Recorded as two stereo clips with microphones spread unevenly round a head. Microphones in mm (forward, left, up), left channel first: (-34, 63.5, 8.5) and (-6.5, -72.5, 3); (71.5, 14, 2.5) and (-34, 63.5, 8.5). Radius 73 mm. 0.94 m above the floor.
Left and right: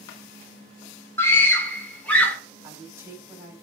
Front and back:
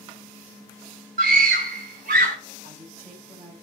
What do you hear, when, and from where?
1.2 s a scream: 175° left, 3.5 m; by 2.4 s 175° right, 3.5 m
2.6 s a woman speaking: 150° right, 5.5 m